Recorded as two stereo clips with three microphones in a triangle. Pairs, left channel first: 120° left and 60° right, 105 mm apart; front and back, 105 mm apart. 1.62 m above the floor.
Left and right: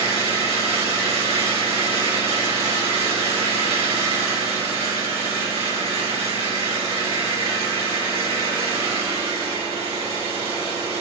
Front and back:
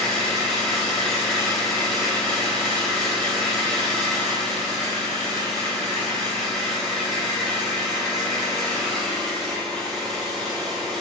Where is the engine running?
85° right, 4.5 m.